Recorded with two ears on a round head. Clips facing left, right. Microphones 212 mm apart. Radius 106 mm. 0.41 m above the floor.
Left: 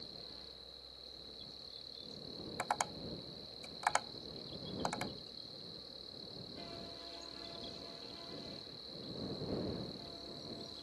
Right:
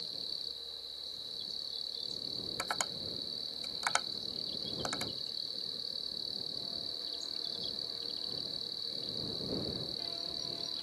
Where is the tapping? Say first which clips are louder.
Left 4 dB; 25° right (ahead or behind).